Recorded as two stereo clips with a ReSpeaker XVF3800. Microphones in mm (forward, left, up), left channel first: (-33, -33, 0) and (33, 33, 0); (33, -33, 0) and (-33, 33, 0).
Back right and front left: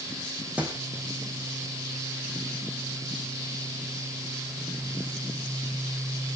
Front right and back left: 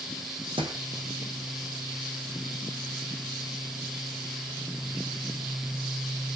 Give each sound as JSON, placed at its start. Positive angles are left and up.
{"t": 0.6, "sound": "a thud", "azimuth_deg": 120, "distance_m": 4.0}